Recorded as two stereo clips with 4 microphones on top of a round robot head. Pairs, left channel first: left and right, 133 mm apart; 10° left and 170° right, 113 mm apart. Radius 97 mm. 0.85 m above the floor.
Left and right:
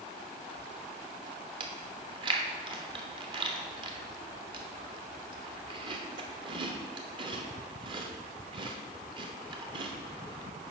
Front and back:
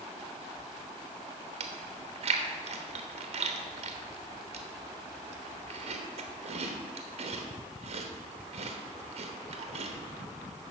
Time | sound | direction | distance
1.6 | chewing | 145° right | 1.0 m